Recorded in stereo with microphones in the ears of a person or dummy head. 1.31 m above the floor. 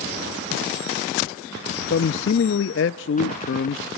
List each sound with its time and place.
1.9 s a man speaking: 65° left (ahead or behind), 0.8 m